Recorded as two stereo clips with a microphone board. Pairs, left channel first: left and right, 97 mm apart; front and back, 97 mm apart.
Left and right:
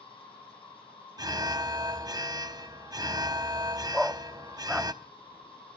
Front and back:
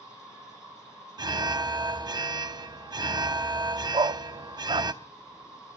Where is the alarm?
135° right, 0.7 m.